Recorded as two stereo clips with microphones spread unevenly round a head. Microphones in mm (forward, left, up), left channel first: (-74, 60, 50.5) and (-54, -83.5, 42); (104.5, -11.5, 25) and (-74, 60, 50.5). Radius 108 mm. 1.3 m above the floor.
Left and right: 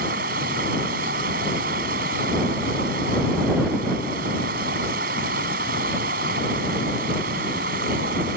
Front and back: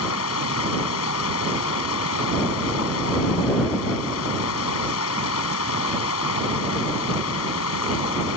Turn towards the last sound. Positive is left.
turn(degrees=-40)